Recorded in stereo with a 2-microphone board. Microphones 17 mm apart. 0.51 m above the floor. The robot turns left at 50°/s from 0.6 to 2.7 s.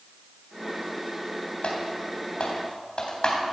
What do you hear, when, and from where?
1.6 s typing on a keyboard: 65° left (ahead or behind), 3.5 m; by 3.3 s 55° left (ahead or behind), 3.5 m